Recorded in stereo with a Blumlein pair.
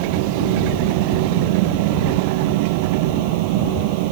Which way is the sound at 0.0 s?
45° right.